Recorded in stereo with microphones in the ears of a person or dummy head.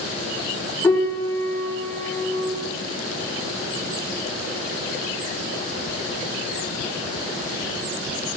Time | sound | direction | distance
0.8 | a piano | 5° left (ahead or behind) | 4.5 m